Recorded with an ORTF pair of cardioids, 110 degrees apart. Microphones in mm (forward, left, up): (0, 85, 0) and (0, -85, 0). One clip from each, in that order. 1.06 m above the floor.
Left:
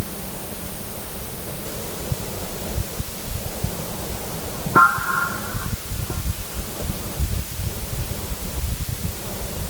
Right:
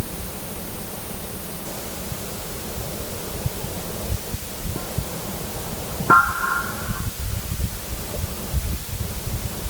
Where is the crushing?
No crushing in this recording.